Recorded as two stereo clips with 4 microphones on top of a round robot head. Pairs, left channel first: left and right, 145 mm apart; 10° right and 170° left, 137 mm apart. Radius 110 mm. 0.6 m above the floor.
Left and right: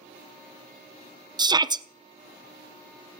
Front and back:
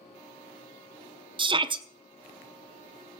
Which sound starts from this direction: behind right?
A shout, at 1.4 s.